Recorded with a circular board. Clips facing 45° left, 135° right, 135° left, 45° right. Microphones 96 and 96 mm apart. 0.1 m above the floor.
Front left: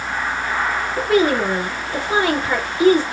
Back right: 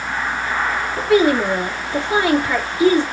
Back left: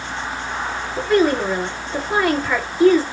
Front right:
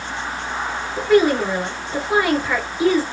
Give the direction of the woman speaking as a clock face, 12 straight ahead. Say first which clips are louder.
Back right 2 dB, front right 2 dB; 11 o'clock.